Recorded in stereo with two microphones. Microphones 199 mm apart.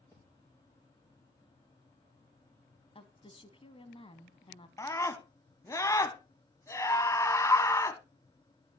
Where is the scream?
15° left (ahead or behind), 1.0 m.